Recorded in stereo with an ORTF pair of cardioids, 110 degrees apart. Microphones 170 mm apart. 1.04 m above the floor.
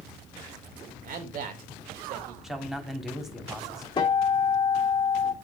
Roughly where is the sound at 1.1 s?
Ahead right.